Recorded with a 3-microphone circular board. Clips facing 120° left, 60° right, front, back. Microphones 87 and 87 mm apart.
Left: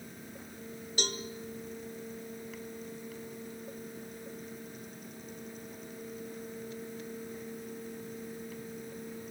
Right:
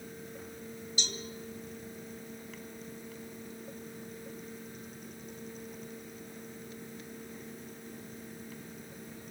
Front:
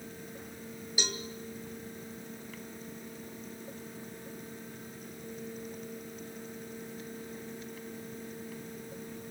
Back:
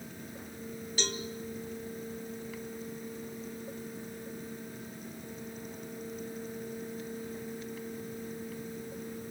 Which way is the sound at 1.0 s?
80° left.